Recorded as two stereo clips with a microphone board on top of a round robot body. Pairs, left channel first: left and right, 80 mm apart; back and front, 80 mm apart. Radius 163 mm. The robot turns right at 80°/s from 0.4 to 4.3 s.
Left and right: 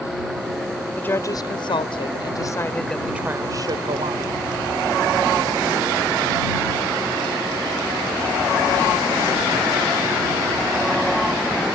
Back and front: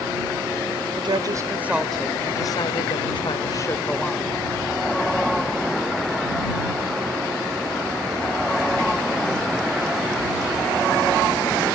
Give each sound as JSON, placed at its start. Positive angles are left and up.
{"t": 1.0, "sound": "a woman speaking", "azimuth_deg": 15}